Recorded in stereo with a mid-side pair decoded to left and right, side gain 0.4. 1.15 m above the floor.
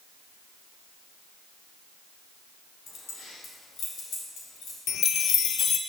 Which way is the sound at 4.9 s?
65° left.